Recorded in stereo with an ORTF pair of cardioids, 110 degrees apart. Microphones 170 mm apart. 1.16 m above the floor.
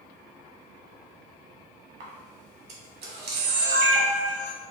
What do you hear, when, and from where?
2.0 s a camera shutter: 65° right, 1.7 m